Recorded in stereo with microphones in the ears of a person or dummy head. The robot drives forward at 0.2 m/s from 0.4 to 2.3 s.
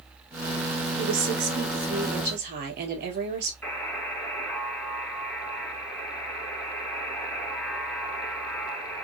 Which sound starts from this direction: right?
A woman speaking, at 1.0 s.